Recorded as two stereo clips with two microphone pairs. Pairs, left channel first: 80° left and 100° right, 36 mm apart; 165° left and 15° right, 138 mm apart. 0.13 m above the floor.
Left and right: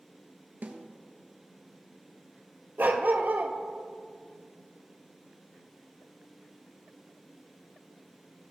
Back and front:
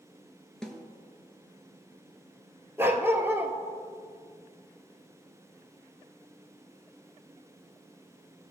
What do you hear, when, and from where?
0.6 s a snare drum: 105° right, 1.3 m
2.8 s a dog barking: 85° right, 1.1 m